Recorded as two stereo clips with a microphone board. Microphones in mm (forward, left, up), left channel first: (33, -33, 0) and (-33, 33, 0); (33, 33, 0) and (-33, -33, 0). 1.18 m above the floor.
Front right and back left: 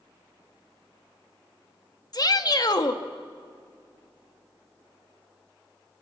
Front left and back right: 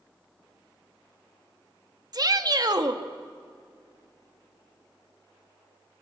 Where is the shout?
90° right, 1.5 m.